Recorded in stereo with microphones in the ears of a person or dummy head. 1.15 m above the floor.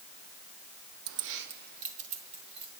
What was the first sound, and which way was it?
Keys jangling, 65° right (ahead or behind).